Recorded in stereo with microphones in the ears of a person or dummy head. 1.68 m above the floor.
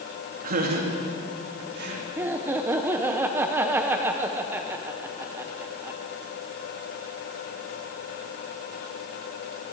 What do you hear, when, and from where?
0.4 s laughter: 45° right (ahead or behind), 3 m; by 2.1 s 55° right (ahead or behind), 4 m
2.2 s laughter: 10° right (ahead or behind), 0.8 m